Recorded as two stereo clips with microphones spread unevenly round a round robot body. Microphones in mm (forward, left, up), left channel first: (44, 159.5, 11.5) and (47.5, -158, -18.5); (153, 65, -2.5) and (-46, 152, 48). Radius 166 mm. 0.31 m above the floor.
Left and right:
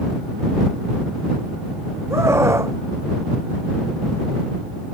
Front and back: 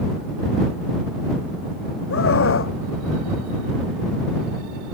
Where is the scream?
5° right.